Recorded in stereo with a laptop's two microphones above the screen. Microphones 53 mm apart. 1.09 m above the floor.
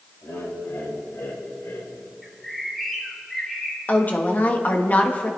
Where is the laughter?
85° left, 6 m; by 1.9 s 75° left (ahead or behind), 3.5 m.